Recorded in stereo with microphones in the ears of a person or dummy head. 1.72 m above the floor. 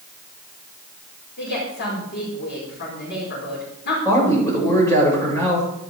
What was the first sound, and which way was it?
A woman speaking, 60° left (ahead or behind).